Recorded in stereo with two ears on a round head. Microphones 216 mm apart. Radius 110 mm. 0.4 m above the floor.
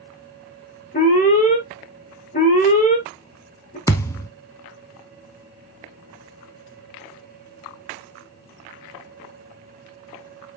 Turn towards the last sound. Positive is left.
turn(degrees=10)  # may be behind; listen again after turning